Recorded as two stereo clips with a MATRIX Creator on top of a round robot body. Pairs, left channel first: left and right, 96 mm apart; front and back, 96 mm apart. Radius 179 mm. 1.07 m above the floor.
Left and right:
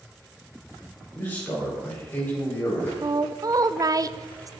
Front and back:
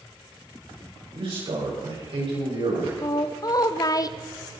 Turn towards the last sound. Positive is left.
turn(degrees=-45)